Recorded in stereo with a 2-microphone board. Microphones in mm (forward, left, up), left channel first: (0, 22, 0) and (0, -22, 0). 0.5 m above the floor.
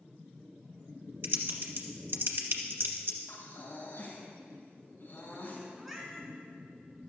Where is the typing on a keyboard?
60° right (ahead or behind), 1.3 m.